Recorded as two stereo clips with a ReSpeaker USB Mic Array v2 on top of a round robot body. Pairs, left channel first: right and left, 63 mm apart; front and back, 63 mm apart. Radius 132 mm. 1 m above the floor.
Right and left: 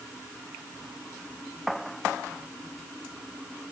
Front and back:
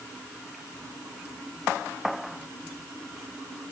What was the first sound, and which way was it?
Only background noise.